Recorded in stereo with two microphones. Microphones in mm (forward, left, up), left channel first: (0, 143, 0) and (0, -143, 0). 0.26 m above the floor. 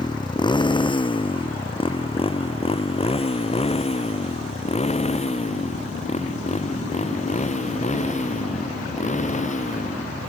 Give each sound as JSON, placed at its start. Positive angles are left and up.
{"t": 0.0, "sound": "a motorcycle", "side_deg": 15}